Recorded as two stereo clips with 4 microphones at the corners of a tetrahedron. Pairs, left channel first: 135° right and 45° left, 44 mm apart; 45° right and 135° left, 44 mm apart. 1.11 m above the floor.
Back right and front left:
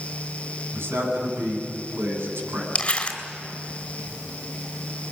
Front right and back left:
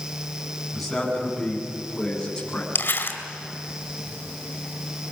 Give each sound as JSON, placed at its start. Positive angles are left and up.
{"t": 0.7, "sound": "a man speaking", "azimuth_deg": 45, "distance_m": 9.5}
{"t": 2.8, "sound": "crumpling", "azimuth_deg": -75, "distance_m": 3.0}